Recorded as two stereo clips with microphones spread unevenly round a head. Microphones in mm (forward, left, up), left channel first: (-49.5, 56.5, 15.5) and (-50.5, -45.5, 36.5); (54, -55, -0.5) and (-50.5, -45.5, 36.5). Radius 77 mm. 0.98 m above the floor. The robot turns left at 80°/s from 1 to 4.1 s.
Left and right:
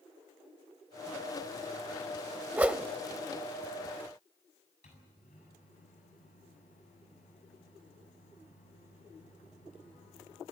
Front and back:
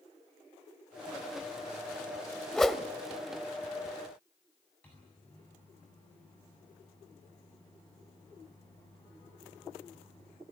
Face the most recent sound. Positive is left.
turn(degrees=75)